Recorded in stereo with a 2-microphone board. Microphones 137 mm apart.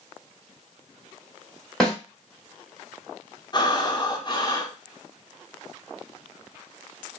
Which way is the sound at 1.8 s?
5° left (ahead or behind).